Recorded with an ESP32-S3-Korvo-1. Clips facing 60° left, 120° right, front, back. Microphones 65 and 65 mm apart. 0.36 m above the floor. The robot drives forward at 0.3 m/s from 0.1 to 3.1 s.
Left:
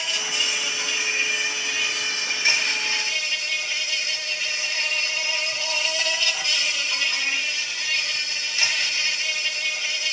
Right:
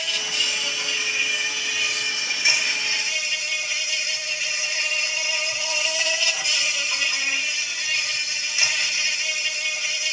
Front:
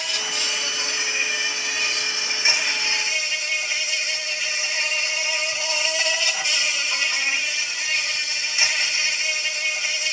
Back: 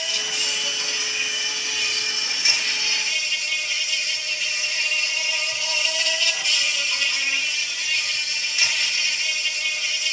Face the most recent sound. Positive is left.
turn(degrees=-65)